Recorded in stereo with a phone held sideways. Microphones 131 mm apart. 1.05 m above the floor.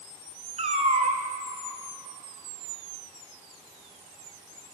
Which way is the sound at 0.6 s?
55° right (ahead or behind).